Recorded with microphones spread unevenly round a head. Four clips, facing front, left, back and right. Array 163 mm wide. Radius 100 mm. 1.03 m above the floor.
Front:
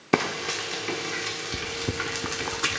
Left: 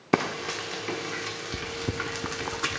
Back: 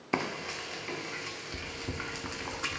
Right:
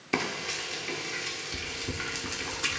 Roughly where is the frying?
Ahead left.